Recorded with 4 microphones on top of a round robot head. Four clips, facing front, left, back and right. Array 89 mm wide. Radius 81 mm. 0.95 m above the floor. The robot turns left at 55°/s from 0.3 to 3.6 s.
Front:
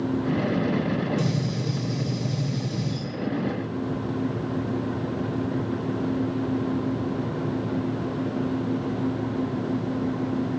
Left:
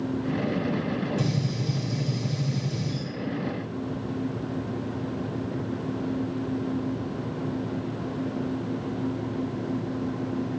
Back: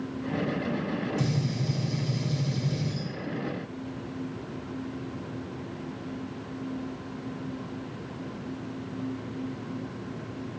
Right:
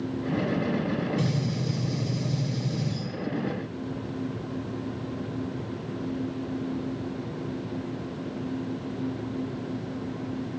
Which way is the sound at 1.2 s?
115° right.